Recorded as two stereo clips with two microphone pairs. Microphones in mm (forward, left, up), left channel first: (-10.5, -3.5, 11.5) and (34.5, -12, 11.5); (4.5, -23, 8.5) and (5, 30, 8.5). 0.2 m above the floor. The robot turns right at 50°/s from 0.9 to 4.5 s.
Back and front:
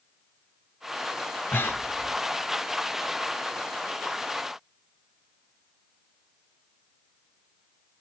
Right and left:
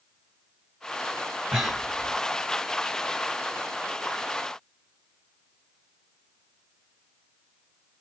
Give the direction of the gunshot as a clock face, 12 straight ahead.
No gunshot in this recording.